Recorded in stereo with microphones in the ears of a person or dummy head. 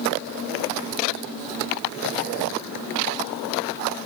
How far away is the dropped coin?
No dropped coin in this recording.